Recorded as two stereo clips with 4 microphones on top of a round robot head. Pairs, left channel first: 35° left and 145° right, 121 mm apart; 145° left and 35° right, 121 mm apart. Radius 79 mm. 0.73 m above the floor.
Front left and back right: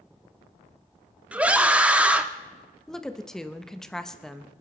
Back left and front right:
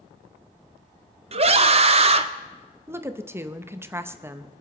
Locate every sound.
1.3 s a scream: 65° right, 1.2 m
2.9 s a woman speaking: 45° right, 0.8 m